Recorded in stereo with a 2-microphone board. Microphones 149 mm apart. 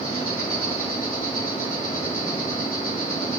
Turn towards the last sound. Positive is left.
turn(degrees=70)  # may be behind; listen again after turning